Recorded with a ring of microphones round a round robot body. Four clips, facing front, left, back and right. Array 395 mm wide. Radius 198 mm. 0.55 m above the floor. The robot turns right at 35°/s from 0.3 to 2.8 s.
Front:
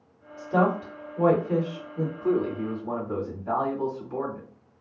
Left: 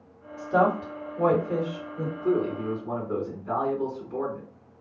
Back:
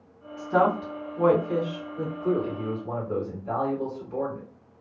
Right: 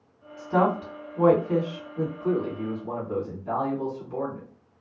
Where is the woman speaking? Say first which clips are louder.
Left 1 dB, back 1 dB; 120° right, 1.9 m; by 2.1 s 60° right, 1.9 m.